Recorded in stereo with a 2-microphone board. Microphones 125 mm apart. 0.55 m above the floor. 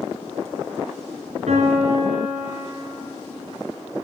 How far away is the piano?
About 2 m.